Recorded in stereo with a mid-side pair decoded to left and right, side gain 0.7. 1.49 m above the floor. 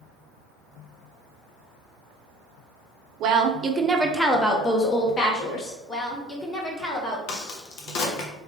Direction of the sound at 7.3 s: 60° left.